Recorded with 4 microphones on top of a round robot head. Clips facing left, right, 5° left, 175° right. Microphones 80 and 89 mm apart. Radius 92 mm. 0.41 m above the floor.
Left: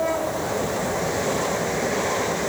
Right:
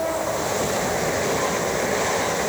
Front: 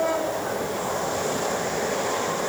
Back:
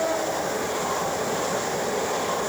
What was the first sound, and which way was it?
Only background noise.